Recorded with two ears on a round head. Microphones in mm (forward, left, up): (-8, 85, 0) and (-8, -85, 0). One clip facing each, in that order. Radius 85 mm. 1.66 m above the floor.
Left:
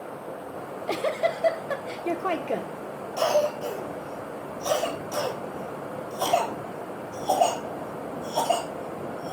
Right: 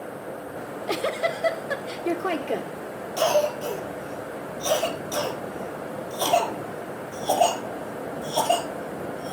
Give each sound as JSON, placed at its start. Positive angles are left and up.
{"t": 0.6, "sound": "a giggle", "side_deg": -5, "distance_m": 1.0}
{"t": 3.2, "sound": "a cough", "side_deg": -20, "distance_m": 5.5}